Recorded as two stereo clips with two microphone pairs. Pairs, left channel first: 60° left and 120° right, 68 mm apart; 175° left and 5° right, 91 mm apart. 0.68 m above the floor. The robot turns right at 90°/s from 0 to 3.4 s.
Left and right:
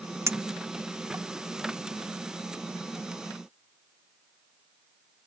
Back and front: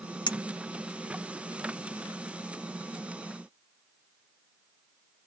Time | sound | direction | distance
0.3 | a clink | 165° right | ?